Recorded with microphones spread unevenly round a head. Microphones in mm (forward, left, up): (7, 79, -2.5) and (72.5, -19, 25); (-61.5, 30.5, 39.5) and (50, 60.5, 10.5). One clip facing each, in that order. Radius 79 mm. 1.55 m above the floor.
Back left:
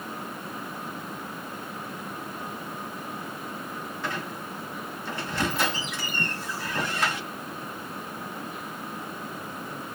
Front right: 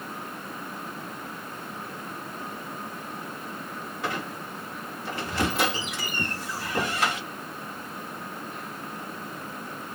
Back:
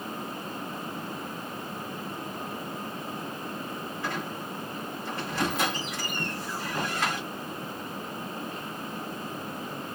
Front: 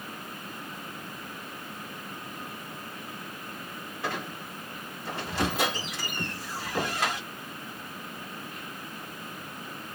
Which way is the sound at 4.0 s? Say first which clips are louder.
Front right 3 dB, front 1 dB; 70° right.